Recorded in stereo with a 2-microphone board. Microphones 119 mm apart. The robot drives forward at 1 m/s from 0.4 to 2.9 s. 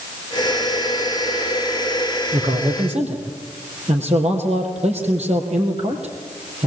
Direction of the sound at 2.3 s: 70° right (ahead or behind).